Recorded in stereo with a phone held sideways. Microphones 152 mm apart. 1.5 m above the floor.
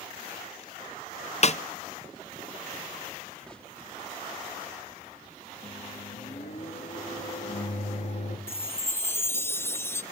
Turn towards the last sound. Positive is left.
turn(degrees=15)  # may be behind; listen again after turning